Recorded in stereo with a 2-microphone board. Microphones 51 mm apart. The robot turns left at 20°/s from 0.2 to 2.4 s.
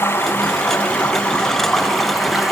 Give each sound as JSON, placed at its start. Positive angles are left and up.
{"t": 0.0, "sound": "running water", "azimuth_deg": 40, "distance_m": 6.0}